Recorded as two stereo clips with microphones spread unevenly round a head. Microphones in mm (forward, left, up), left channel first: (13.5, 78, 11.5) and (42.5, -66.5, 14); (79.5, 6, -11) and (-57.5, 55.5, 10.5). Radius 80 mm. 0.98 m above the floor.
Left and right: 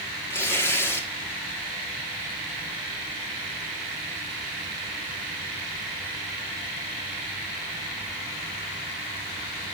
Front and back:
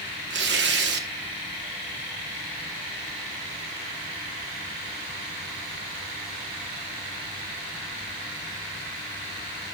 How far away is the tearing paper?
About 1.2 m.